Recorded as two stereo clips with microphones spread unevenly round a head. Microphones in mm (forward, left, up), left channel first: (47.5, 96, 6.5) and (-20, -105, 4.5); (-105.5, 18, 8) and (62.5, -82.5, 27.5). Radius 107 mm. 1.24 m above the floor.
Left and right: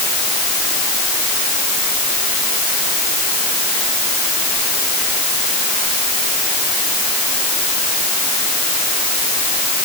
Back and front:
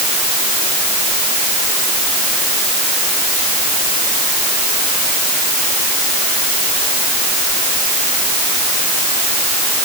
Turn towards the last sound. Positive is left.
No sound to turn to.